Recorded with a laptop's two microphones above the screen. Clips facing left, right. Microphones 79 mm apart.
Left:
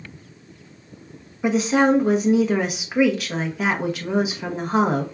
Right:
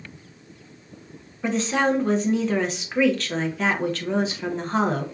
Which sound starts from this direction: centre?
A woman speaking, at 1.4 s.